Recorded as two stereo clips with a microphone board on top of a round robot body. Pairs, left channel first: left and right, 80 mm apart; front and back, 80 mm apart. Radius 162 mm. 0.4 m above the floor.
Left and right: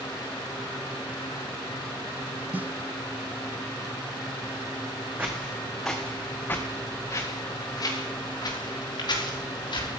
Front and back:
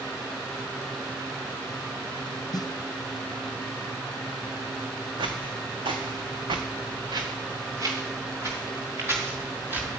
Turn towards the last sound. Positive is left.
turn(degrees=115)